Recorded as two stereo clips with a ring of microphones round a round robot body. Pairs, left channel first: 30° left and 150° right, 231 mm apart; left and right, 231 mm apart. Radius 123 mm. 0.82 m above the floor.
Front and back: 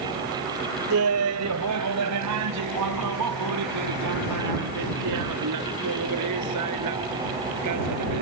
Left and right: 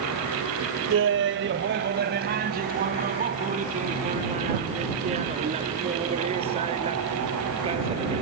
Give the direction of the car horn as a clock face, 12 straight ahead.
I don't hear a car horn.